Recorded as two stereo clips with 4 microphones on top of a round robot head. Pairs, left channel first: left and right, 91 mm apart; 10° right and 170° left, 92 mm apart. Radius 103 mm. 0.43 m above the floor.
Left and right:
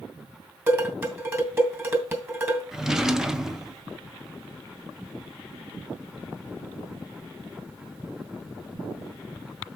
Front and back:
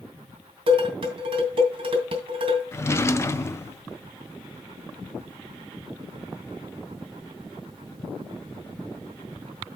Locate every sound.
0.7 s dishes clattering: 155° right, 2.5 m
2.7 s a drawer: 10° right, 0.6 m